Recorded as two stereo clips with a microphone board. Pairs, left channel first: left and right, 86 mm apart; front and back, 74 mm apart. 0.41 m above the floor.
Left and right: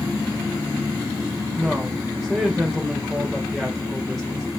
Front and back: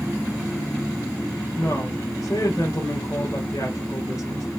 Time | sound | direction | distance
1.6 | a woman speaking | straight ahead | 1.6 m